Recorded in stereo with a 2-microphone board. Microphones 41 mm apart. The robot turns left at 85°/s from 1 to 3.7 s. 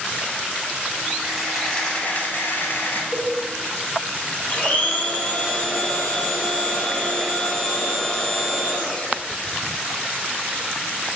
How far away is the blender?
About 1.9 m.